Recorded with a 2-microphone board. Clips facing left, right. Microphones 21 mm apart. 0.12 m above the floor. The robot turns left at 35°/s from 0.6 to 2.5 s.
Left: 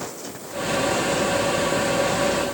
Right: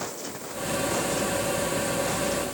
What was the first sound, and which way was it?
Only background noise.